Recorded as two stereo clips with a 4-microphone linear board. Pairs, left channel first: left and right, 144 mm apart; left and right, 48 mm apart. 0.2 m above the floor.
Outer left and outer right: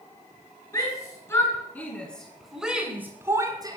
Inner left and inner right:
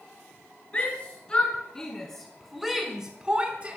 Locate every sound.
0.7 s a shout: 25° left (ahead or behind), 2.5 m; by 3.8 s 30° right (ahead or behind), 1.7 m